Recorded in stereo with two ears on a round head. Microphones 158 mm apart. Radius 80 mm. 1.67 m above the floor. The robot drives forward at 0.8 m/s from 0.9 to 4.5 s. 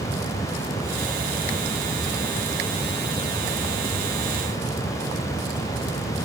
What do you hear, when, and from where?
Only background noise.